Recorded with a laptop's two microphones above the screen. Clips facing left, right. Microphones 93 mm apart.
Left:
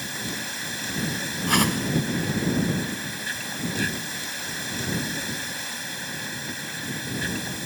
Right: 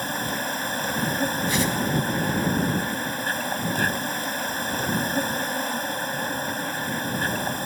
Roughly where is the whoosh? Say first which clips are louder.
Left 1 dB; left.